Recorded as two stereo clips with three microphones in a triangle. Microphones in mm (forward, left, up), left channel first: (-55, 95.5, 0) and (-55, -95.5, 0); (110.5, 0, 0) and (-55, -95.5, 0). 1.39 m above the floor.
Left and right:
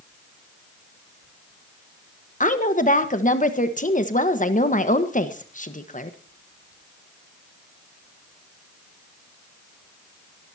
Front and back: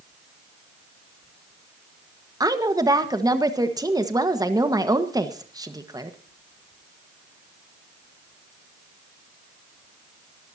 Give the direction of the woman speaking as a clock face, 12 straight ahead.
7 o'clock.